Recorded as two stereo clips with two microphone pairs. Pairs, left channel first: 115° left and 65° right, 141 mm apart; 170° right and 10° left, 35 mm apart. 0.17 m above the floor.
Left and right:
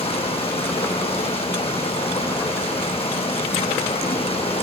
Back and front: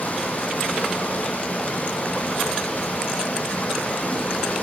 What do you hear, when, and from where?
0.0 s running water: 155° left, 4.5 m